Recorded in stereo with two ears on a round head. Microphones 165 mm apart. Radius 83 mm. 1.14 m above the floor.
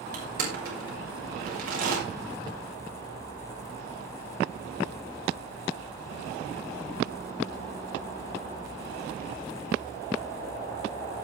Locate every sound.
0.1 s crushing: 50° right (ahead or behind), 6.5 m